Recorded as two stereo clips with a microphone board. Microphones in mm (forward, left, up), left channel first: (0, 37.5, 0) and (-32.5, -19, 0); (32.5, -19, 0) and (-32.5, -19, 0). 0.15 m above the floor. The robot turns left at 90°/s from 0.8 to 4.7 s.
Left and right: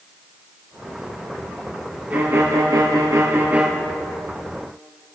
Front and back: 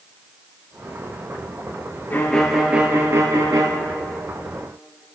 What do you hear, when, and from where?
2.1 s a violin: 55° right, 2 m; by 3.7 s 165° left, 2 m